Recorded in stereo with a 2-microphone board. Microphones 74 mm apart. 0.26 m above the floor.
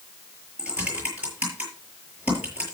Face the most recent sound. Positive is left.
turn(degrees=-20)  # may be behind; listen again after turning